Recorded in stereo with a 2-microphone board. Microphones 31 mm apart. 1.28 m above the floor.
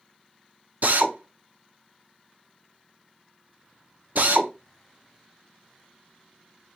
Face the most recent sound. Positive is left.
turn(degrees=-65)  # may be behind; listen again after turning